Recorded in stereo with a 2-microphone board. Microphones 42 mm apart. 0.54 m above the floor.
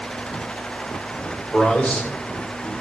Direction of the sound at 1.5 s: 40° left (ahead or behind).